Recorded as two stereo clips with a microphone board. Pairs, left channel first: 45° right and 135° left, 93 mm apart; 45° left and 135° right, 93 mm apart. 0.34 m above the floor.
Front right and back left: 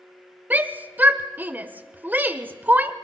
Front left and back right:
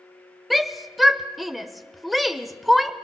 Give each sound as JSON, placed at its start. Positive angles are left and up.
{"t": 0.5, "sound": "a shout", "azimuth_deg": 135, "distance_m": 0.9}